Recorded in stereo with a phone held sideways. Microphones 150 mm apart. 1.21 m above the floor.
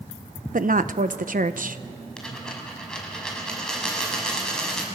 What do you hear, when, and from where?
0.5 s a woman speaking: 65° right (ahead or behind), 0.9 m
2.2 s a dropped coin: 5° left (ahead or behind), 5 m